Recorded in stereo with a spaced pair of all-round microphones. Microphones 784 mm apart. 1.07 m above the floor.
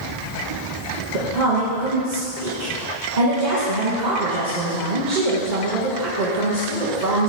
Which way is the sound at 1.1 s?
60° right (ahead or behind).